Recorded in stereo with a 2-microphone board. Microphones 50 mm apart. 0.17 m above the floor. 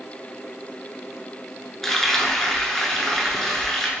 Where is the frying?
10° left (ahead or behind), 0.7 m.